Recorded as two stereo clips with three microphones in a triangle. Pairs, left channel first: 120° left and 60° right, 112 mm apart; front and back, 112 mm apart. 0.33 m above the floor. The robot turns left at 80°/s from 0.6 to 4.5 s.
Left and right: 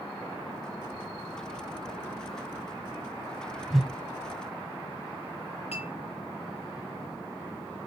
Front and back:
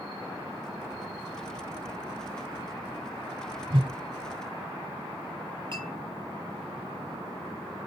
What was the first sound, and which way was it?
A whoosh, 145° right.